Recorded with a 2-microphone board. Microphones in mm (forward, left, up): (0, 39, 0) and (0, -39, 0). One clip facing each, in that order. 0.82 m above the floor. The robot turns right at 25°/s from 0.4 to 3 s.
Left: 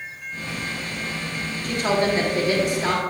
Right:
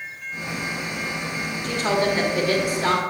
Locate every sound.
1.6 s a woman speaking: 130° left, 1.6 m; by 3.0 s 165° left, 1.6 m